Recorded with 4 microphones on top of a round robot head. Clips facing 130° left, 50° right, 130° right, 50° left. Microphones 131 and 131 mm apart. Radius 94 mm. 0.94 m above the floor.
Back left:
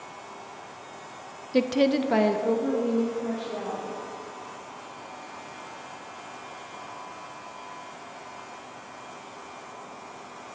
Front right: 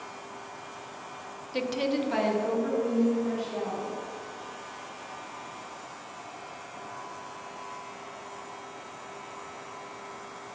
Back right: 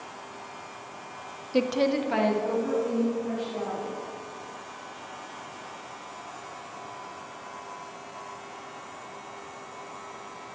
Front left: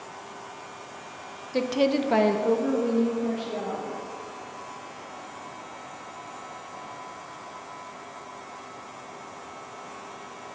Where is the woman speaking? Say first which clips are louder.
Back left 6 dB, front left 1 dB; 160° left, 0.6 m; by 4.0 s 65° left, 2.5 m.